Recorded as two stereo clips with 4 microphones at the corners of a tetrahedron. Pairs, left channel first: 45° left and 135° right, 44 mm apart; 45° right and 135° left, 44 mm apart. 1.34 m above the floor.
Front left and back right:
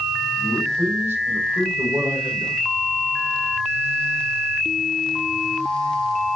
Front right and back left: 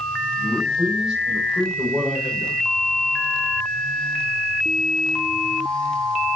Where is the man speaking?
145° right, 7.5 m.